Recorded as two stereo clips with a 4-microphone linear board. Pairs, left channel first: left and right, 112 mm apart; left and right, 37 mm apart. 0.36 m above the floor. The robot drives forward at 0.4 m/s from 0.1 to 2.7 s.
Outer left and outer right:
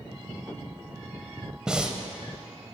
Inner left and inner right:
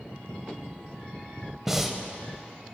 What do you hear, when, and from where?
1.7 s breathing: 5° right (ahead or behind), 0.6 m; by 2.0 s 10° right (ahead or behind), 0.5 m